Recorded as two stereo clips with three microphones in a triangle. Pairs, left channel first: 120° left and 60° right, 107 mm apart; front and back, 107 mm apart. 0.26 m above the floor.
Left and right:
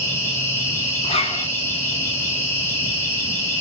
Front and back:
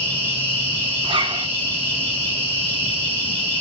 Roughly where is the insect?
Left.